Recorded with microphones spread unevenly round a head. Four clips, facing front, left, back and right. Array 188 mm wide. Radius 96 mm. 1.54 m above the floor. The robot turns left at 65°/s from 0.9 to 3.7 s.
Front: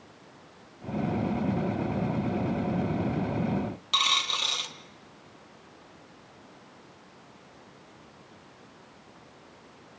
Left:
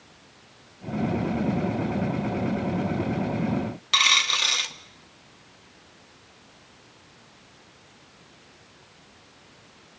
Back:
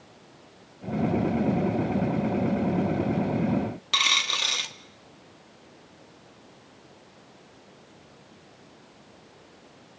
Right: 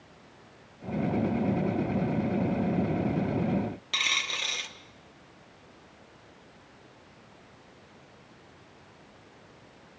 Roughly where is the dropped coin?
Ahead left.